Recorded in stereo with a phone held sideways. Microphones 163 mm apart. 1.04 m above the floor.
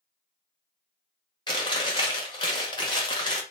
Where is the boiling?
I don't hear boiling.